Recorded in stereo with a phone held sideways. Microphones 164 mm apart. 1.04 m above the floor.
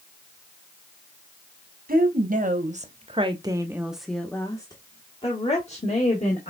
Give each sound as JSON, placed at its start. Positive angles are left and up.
{"t": 1.9, "sound": "a woman speaking", "side_deg": -60, "distance_m": 1.3}